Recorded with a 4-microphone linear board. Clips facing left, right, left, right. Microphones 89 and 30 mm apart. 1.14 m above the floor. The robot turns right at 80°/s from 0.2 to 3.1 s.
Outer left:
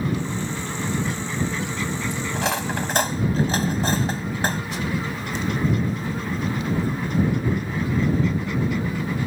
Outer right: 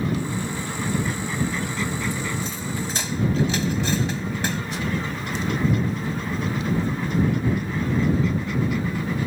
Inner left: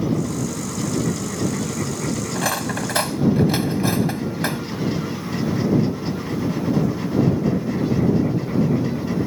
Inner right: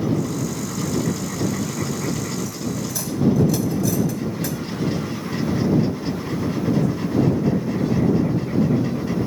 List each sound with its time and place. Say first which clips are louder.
2.3 s cutlery clinking: outer left 4 dB, inner left 4 dB; 75° left (ahead or behind); by 4.6 s 40° left (ahead or behind)